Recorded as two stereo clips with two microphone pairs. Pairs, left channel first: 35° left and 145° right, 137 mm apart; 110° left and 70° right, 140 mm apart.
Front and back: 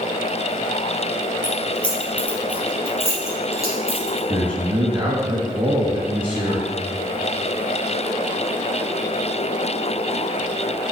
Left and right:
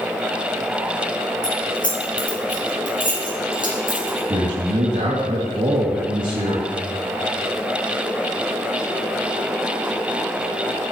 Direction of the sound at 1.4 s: 120° left.